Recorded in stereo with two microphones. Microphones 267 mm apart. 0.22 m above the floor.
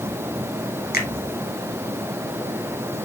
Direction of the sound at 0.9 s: 35° left (ahead or behind).